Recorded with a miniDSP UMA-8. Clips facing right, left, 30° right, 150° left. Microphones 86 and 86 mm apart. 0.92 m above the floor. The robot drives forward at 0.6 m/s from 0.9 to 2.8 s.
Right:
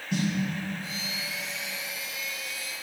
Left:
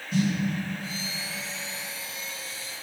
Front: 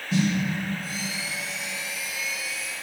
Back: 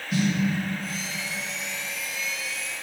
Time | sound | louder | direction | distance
0.1 | a snare drum | left 3 dB, front 1 dB | 85° right | 2.5 m